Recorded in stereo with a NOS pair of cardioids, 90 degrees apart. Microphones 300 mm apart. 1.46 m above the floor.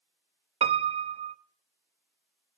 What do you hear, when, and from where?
0.6 s a piano: 15° right, 0.8 m